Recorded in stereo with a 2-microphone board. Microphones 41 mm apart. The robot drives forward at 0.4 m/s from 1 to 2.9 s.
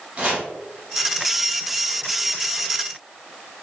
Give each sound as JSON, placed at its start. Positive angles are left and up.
{"t": 0.2, "sound": "chopping", "side_deg": -30, "distance_m": 1.3}